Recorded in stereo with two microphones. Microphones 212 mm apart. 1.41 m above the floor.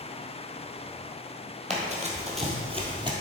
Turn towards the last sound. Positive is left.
turn(degrees=-20)  # may be behind; listen again after turning